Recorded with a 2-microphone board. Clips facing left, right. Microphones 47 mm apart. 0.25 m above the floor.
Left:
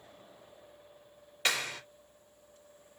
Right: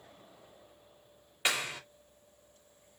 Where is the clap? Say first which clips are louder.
Even; 20° right (ahead or behind), 2.5 m.